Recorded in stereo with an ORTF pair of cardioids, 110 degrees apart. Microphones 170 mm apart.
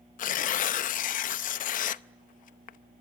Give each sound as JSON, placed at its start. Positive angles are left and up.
{"t": 0.2, "sound": "tearing paper", "azimuth_deg": 55, "distance_m": 0.7}